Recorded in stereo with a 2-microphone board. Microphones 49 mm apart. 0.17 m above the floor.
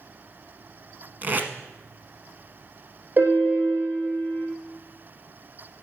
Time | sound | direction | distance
1.2 | tape being pulled | 40° right (ahead or behind) | 1.0 m
3.2 | a piano | 40° right (ahead or behind) | 3.5 m